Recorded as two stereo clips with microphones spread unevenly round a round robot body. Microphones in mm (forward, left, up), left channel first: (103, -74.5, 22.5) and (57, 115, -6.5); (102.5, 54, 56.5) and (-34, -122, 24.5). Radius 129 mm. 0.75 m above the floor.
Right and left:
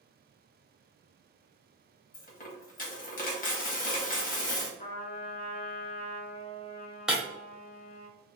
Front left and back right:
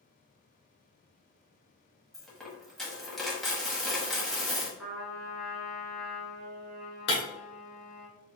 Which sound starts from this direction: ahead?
Breaking glass, at 7.1 s.